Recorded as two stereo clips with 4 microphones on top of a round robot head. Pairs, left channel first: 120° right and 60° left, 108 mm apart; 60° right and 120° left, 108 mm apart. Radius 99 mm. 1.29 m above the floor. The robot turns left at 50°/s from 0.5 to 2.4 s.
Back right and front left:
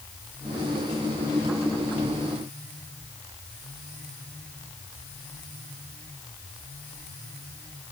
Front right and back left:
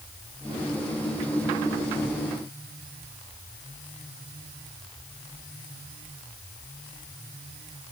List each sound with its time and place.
Only background noise.